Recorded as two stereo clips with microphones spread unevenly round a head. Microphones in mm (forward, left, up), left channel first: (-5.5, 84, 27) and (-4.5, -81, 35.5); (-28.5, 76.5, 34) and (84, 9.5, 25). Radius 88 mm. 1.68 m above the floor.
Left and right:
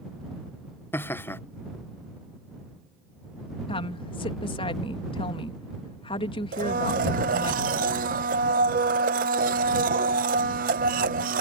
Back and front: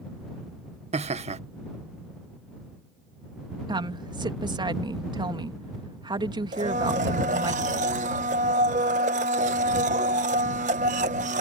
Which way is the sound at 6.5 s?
70° right.